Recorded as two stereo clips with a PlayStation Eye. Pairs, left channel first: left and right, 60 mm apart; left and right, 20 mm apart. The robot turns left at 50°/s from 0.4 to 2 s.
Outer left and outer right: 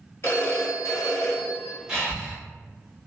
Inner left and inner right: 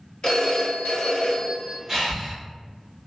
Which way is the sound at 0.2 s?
135° left.